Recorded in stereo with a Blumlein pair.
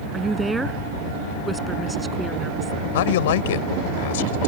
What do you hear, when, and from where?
0.1 s a woman speaking: 10° right
2.9 s a man speaking: 55° left